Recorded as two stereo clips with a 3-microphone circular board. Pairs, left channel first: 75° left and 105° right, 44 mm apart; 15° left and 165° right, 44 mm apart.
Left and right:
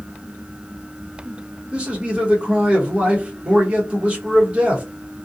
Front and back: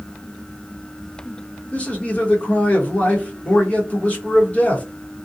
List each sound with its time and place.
1.7 s a man speaking: 45° right, 1.1 m